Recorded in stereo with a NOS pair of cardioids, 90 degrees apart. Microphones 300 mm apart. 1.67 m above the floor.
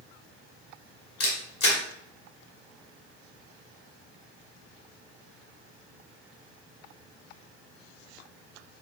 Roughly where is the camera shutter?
Ahead left.